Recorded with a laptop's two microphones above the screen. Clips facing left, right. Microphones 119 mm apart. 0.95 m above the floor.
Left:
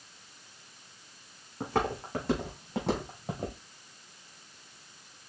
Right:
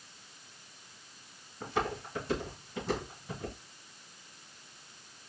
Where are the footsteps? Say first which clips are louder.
Left 3 dB; 75° left (ahead or behind), 3.5 m; by 3.6 s 70° left (ahead or behind), 2.5 m.